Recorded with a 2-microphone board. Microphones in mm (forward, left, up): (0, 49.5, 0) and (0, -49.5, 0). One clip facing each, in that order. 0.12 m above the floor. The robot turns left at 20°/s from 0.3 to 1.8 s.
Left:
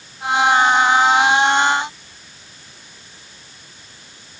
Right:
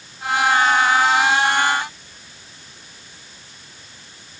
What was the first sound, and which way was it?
Only background noise.